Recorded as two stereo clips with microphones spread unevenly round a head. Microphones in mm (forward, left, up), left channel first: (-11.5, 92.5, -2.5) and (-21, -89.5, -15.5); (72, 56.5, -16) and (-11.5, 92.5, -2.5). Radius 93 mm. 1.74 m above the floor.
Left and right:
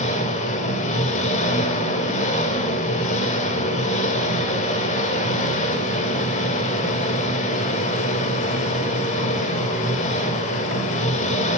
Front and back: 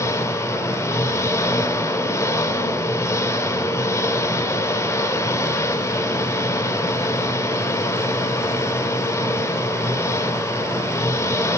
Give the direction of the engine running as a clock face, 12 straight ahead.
11 o'clock.